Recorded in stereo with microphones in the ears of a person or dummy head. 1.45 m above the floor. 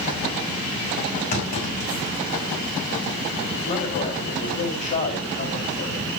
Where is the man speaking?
50° left (ahead or behind), 5 m.